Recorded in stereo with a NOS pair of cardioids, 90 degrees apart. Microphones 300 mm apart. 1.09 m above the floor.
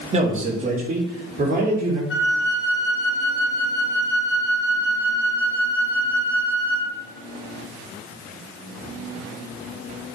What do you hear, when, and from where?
0.1 s a man speaking: 20° right, 2.5 m; by 2.0 s 30° right, 4 m
2.1 s a flute: 40° left, 1.7 m